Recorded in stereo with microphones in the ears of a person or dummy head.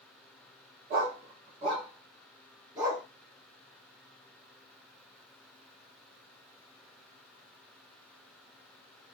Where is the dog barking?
40° right (ahead or behind), 1.1 m; by 3.0 s 10° right (ahead or behind), 2.5 m.